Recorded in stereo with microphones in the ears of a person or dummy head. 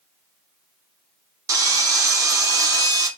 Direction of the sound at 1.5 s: 15° right (ahead or behind).